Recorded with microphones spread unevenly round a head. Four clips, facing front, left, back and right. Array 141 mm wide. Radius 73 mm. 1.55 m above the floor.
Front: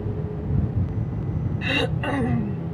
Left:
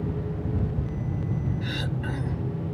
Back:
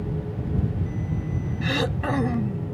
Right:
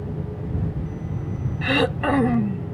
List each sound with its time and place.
1.6 s throat clearing: 85° right